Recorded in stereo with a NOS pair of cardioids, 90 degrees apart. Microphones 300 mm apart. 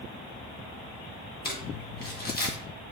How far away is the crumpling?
About 1.3 m.